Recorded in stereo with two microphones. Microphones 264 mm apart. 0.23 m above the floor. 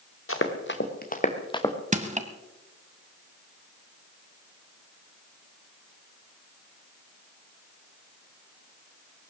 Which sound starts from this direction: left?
Running footsteps, at 0.3 s.